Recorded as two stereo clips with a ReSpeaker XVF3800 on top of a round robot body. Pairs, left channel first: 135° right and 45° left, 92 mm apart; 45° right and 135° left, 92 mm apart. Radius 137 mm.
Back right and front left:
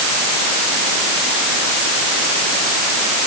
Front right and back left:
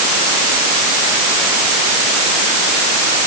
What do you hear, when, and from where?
Only background noise.